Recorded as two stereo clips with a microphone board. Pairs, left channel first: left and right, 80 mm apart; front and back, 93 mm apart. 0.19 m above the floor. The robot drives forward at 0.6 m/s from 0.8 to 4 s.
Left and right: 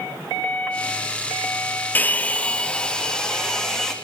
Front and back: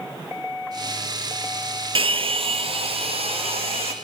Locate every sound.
1.9 s a hair dryer: 155° left, 0.6 m; by 3.9 s 175° left, 1.7 m